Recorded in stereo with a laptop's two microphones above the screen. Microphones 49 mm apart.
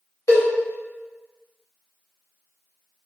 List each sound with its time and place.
0.3 s a cowbell: 80° left, 1.2 m